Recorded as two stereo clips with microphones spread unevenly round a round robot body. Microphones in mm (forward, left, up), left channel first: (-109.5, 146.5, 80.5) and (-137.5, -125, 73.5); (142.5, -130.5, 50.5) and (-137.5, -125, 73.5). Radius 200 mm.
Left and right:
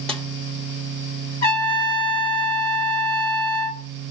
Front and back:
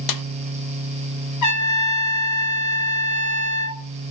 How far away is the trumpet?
About 3 m.